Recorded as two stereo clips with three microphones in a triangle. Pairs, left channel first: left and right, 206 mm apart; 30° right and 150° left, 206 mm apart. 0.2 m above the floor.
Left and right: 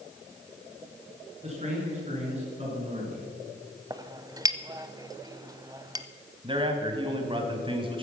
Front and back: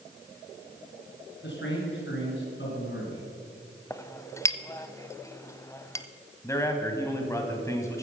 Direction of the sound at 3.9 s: 70° right.